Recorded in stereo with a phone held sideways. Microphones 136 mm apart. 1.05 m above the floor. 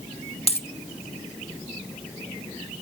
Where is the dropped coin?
45° left (ahead or behind), 0.9 m.